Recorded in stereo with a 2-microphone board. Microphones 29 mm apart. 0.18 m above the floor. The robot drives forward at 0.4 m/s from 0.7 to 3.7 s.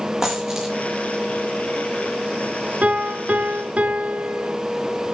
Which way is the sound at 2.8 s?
60° right (ahead or behind).